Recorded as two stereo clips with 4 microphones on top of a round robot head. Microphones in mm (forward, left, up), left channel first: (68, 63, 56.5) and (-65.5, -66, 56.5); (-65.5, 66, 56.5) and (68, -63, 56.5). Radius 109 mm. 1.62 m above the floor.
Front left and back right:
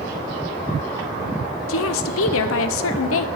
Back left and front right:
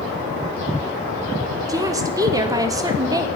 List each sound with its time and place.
1.7 s a woman speaking: 30° left, 0.7 m